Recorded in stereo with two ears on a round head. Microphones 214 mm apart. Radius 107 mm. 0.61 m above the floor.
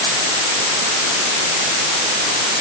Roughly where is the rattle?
I don't hear a rattle.